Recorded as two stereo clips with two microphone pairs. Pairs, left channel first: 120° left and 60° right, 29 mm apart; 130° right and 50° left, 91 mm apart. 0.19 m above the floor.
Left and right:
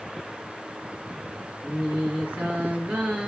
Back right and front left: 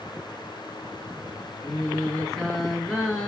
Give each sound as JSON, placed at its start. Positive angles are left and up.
{"t": 1.6, "sound": "singing", "azimuth_deg": -40, "distance_m": 1.9}